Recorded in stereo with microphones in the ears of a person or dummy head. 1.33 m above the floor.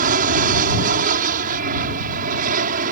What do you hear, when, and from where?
0.0 s an aircraft: 45° right (ahead or behind)